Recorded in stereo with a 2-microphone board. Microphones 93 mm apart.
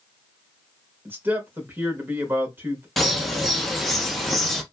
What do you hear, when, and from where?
1.1 s a man speaking: 25° right (ahead or behind), 0.9 m
3.0 s a bird: centre (ahead or behind), 0.6 m